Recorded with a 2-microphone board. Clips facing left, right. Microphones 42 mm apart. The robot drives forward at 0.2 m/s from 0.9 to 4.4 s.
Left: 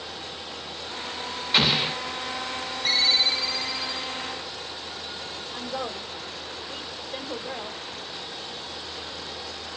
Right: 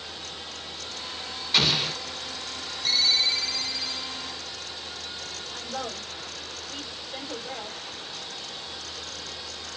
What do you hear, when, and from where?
1.5 s an explosion: 15° left (ahead or behind), 0.6 m; by 2.0 s 20° left (ahead or behind), 0.6 m
2.9 s a ringtone: 20° left (ahead or behind), 1.2 m; by 4.2 s 15° left (ahead or behind), 1.5 m
5.5 s a woman speaking: 10° left (ahead or behind), 1.5 m